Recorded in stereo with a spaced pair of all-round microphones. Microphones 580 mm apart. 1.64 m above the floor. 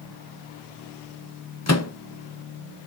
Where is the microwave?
30° left (ahead or behind), 0.7 m.